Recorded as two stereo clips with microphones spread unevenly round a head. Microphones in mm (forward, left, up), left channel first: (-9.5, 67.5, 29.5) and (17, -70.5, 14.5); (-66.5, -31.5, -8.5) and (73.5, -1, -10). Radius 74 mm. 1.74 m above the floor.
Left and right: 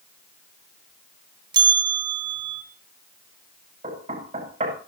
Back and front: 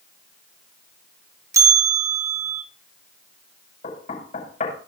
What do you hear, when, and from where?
1.5 s a bell: 35° right, 1.0 m
3.8 s knocking: 130° right, 6 m